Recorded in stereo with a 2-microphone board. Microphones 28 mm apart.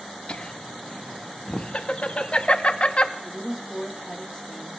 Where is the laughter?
40° left (ahead or behind), 0.7 m.